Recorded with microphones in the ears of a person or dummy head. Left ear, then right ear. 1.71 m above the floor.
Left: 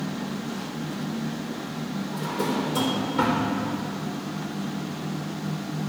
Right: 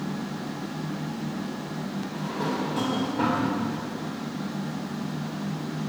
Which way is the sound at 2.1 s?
75° left (ahead or behind).